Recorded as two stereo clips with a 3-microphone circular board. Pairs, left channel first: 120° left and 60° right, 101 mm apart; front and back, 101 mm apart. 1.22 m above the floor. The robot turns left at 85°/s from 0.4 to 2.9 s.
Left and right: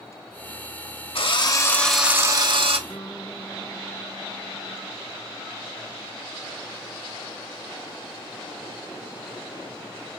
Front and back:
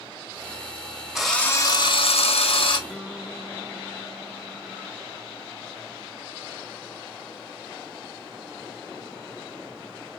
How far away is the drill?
About 0.8 m.